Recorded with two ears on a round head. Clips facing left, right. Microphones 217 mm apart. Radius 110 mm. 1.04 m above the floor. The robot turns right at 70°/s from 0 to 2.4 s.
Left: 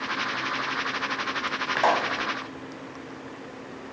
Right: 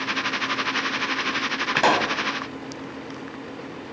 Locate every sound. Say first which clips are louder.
1.8 s a pop: right 3 dB; 45° right (ahead or behind), 1.7 m; by 2.2 s 65° right (ahead or behind), 1.7 m